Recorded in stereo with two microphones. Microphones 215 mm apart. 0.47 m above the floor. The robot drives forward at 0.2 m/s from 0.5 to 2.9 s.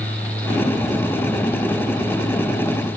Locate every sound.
Only background noise.